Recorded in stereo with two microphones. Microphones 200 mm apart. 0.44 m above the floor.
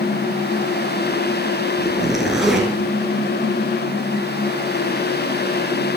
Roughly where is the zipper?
Centre.